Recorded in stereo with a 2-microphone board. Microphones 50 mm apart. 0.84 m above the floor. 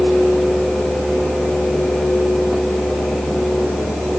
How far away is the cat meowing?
I don't hear a cat meowing.